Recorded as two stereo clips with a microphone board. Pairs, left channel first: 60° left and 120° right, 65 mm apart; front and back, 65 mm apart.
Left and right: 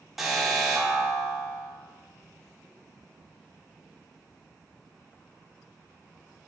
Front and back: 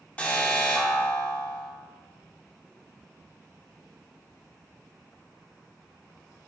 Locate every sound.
0.2 s an alarm: 40° right, 1.4 m